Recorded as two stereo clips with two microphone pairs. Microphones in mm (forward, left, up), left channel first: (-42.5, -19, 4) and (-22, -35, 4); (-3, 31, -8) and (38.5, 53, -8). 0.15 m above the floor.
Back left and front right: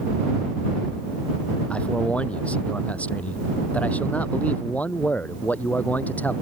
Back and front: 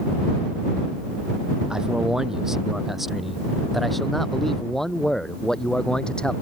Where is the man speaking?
105° left; by 6.3 s 140° left.